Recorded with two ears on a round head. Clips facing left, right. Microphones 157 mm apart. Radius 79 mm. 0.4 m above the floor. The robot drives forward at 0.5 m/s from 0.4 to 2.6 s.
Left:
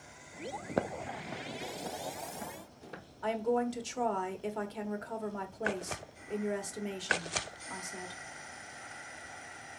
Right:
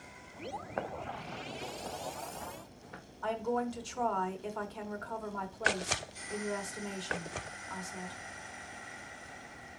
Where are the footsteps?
45° left (ahead or behind), 0.6 m; by 3.0 s 40° left (ahead or behind), 3.5 m.